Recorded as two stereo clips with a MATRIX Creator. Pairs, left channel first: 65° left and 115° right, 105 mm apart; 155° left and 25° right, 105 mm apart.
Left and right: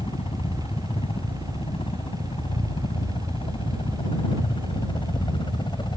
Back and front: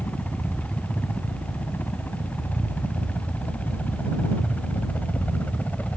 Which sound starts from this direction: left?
A helicopter, at 0.0 s.